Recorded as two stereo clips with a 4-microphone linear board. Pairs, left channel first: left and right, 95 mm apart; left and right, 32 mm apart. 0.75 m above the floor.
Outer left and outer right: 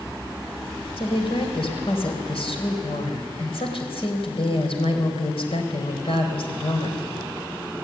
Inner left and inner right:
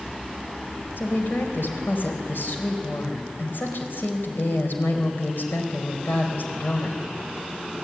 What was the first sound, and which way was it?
A woman speaking, 75° left (ahead or behind).